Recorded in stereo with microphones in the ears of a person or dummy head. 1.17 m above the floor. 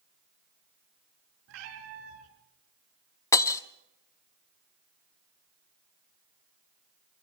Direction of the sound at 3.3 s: 15° left (ahead or behind).